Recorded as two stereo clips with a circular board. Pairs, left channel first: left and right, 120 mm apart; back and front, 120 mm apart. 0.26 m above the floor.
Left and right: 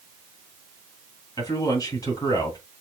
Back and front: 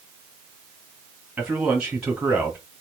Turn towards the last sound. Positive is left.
turn(degrees=75)